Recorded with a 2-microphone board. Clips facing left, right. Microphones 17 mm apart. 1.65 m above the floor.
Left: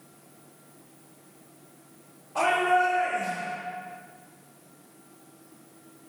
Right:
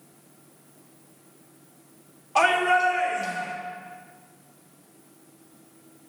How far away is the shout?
About 3 m.